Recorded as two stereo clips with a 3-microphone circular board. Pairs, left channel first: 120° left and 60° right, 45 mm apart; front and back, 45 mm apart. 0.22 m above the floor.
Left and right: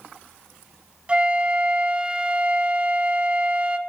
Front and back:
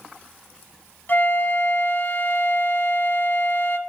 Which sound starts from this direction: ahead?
A flute, at 1.1 s.